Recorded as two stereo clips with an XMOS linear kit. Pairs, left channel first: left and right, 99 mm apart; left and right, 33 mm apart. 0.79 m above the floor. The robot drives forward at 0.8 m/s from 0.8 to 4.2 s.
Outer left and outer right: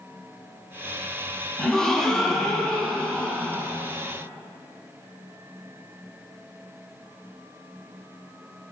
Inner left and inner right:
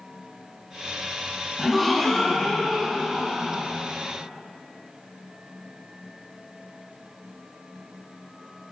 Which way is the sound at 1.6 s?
5° left (ahead or behind).